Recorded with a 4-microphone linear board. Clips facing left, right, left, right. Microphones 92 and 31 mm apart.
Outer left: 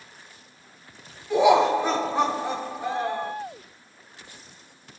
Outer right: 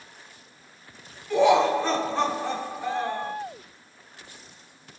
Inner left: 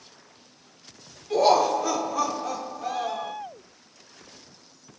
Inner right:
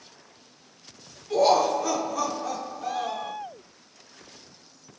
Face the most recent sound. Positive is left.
turn(degrees=10)  # may be behind; listen again after turning